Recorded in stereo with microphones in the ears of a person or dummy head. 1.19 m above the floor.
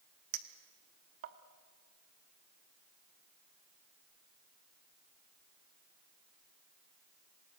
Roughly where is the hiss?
No hiss in this recording.